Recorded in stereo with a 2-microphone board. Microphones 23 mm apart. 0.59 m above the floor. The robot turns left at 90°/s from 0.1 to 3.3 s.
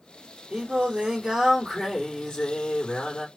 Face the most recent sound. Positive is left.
turn(degrees=45)